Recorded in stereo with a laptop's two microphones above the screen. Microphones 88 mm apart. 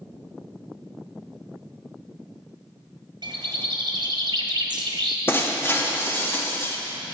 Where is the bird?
60° right (ahead or behind), 1.2 m.